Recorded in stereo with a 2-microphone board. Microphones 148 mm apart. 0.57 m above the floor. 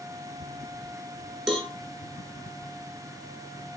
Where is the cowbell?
5° left (ahead or behind), 3 m.